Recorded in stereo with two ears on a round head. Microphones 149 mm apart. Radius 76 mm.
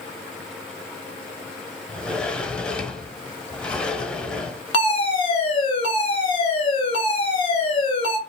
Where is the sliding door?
5° left (ahead or behind), 0.9 m.